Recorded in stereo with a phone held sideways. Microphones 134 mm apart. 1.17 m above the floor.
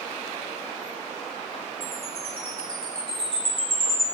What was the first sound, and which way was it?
A chime, 45° left (ahead or behind).